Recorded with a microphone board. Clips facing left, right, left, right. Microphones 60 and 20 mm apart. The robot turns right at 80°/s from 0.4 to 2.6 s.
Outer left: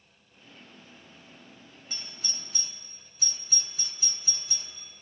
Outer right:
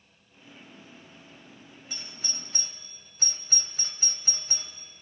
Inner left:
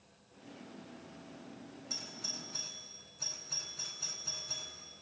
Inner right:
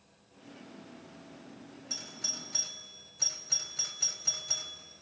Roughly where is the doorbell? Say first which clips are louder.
Even, inner right 4 dB; centre.